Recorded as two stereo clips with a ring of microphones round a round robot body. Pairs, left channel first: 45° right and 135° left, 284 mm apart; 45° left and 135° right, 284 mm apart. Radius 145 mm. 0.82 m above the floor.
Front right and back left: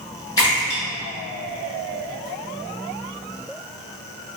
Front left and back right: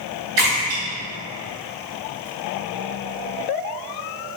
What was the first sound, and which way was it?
A splash, 120° right.